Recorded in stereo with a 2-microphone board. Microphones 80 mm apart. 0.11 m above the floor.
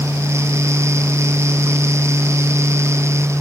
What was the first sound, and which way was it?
Only background noise.